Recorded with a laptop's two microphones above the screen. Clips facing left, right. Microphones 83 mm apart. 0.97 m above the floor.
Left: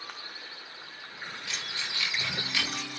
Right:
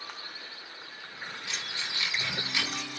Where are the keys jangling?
20° right (ahead or behind), 6 m; by 2.8 s 10° right (ahead or behind), 5.5 m.